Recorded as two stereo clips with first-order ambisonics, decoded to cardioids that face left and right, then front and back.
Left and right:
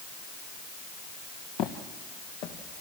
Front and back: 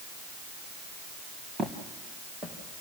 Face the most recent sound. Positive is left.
turn(degrees=105)